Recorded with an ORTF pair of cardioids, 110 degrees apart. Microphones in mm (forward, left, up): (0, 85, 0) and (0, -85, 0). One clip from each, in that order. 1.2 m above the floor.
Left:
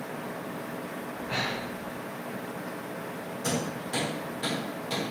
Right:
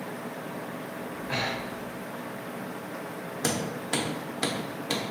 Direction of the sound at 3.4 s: 65° right.